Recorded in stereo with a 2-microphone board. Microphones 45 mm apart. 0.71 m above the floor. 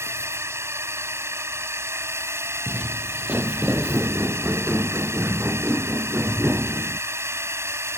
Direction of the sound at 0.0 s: 75° right (ahead or behind).